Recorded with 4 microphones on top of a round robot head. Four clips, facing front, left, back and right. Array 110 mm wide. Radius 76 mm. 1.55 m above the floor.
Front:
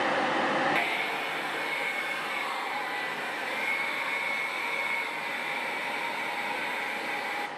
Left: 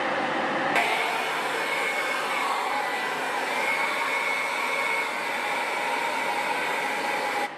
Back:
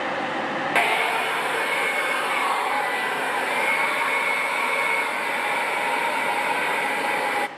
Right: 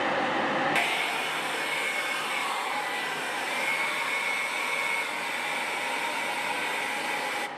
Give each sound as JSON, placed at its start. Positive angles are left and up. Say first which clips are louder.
{"t": 0.8, "sound": "a hair dryer", "louder": "left 4 dB, back 9 dB", "azimuth_deg": 155, "distance_m": 0.6}